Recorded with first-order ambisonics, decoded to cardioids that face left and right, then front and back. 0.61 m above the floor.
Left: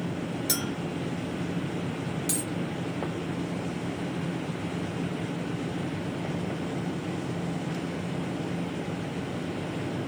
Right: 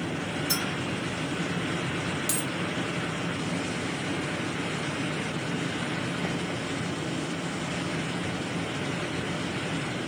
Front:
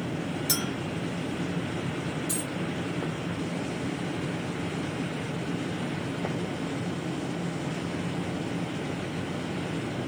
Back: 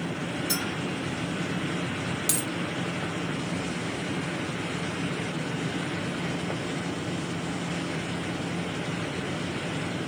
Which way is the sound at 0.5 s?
45° left.